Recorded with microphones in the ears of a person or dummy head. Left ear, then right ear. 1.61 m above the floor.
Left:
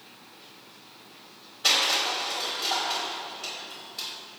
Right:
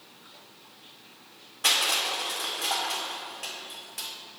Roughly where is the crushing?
Right.